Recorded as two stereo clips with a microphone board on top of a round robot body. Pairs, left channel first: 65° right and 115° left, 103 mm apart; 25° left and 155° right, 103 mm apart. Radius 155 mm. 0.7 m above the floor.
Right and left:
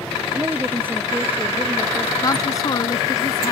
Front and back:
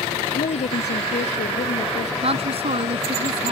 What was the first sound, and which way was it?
A woman speaking, 40° left.